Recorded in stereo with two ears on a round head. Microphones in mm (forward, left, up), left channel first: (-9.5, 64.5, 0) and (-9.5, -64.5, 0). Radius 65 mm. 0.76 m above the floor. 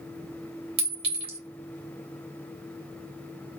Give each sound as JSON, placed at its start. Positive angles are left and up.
{"t": 0.8, "sound": "a clink", "side_deg": -40, "distance_m": 2.5}